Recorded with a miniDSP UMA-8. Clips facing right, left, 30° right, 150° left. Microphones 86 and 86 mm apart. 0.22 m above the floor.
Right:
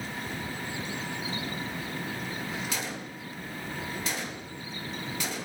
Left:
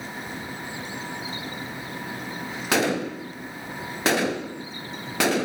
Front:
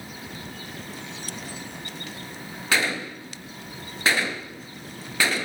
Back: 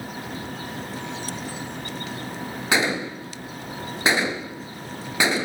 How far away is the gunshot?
About 0.8 m.